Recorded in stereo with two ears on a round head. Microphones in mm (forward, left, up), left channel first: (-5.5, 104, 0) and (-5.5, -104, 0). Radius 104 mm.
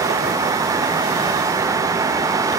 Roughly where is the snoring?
No snoring in this recording.